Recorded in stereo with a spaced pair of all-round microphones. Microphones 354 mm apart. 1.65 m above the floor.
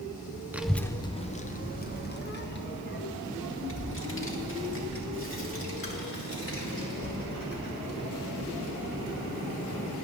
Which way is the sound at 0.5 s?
5° right (ahead or behind).